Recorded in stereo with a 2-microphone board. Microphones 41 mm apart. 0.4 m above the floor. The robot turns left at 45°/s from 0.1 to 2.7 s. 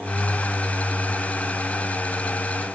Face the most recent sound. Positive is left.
No sound to turn to.